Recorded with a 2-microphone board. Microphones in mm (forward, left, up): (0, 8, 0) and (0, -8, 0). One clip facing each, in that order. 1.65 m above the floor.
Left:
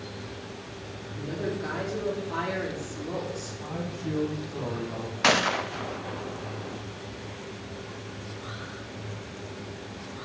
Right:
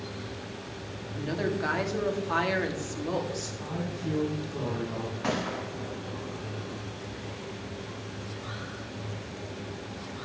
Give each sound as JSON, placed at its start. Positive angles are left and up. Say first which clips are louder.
{"t": 1.1, "sound": "a woman speaking", "louder": "right 2 dB", "side_deg": -80, "distance_m": 3.0}
{"t": 3.6, "sound": "a man speaking", "louder": "left 1 dB", "side_deg": -10, "distance_m": 3.0}
{"t": 5.2, "sound": "a gunshot", "louder": "left 10 dB", "side_deg": 65, "distance_m": 0.5}